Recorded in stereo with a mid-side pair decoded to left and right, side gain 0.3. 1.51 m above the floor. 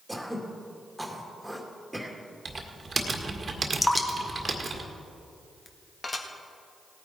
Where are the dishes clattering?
45° left, 1.6 m.